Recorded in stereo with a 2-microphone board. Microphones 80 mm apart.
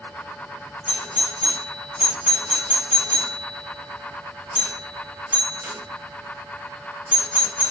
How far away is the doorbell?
About 1.1 m.